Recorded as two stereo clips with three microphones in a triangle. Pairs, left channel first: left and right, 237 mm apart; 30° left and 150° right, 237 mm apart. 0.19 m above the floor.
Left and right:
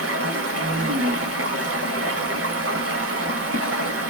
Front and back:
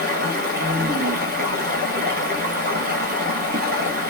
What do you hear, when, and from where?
0.0 s running water: 100° right, 0.9 m